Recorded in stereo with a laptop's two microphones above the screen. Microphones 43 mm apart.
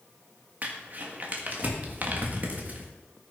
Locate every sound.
0.6 s crumpling: 45° right (ahead or behind), 1.5 m